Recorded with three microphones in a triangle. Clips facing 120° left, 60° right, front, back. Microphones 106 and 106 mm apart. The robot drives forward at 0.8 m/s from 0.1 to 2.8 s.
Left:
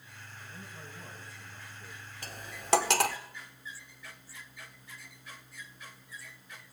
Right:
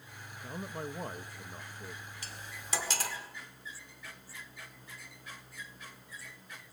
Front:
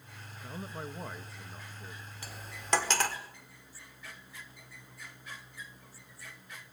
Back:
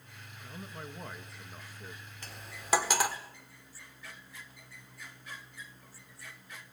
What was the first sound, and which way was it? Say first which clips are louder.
A man speaking: right 10 dB, front 4 dB; 55° right.